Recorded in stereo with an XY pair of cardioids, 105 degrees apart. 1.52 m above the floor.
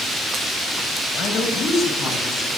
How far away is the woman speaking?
About 9 m.